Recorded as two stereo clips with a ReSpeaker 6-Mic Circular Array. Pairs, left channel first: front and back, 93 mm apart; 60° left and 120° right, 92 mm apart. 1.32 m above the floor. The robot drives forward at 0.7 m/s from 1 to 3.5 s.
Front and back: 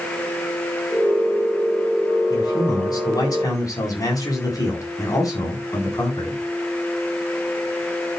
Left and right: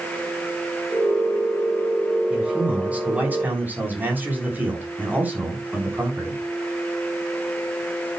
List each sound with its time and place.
2.3 s a man speaking: 40° right, 4.5 m; by 6.4 s 50° right, 4 m